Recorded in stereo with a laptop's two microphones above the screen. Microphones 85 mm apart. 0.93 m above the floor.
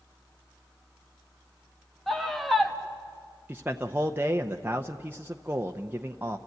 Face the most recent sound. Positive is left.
turn(degrees=-25)  # may be behind; listen again after turning